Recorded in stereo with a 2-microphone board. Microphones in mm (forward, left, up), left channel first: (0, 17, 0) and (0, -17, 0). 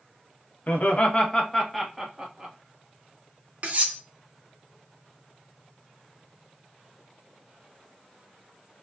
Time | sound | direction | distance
0.7 | laughter | 55° left (ahead or behind) | 1.0 m
3.6 | cutlery clinking | 45° right (ahead or behind) | 1.5 m